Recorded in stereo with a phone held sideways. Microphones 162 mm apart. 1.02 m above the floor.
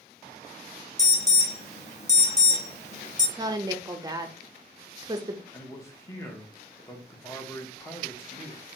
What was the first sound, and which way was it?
An alarm, 40° left (ahead or behind).